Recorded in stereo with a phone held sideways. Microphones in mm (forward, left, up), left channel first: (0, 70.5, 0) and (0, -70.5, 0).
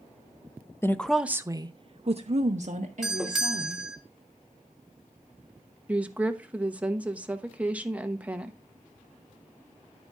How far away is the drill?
No drill in this recording.